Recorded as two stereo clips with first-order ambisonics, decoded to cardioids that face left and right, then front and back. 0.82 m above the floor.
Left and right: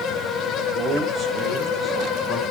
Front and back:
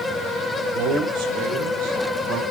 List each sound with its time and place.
0.7 s a man speaking: 150° right, 4 m; by 2.4 s 175° right, 5 m